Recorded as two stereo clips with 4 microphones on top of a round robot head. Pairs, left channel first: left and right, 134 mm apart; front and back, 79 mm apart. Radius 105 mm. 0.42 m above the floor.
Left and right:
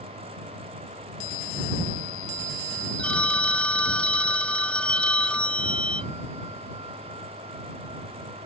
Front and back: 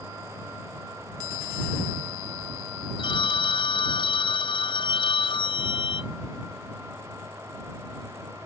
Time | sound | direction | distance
3.0 | a phone ringing | 10° left | ?